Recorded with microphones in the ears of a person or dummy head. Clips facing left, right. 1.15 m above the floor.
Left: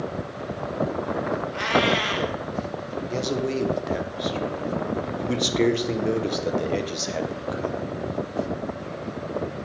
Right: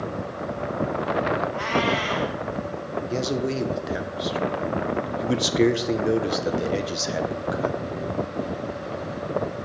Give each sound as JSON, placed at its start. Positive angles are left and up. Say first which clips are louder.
{"t": 1.5, "sound": "a cat meowing", "louder": "left 1 dB", "side_deg": 40, "distance_m": 1.8}
{"t": 3.1, "sound": "a man speaking", "louder": "even", "side_deg": -5, "distance_m": 0.6}